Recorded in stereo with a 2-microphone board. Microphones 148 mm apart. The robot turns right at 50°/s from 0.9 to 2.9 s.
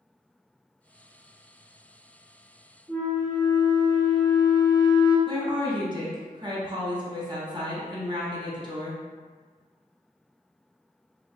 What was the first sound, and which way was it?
A flute, 5° right (ahead or behind).